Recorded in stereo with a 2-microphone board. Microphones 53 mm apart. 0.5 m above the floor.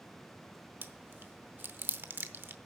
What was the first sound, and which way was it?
Chewing, 45° right (ahead or behind).